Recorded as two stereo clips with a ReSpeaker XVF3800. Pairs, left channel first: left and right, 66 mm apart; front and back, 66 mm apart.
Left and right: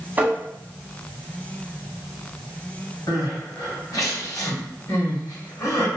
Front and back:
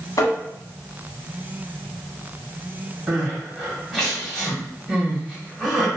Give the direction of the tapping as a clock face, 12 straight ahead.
1 o'clock.